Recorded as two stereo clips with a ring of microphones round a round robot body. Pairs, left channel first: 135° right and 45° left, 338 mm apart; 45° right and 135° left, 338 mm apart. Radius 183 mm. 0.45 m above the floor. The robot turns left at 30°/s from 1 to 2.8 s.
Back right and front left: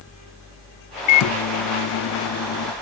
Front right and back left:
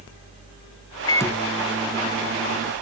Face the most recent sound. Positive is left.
turn(degrees=-170)